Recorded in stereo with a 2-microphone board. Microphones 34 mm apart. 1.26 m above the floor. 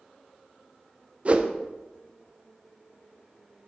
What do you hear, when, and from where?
1.2 s a whoosh: 35° right (ahead or behind), 0.6 m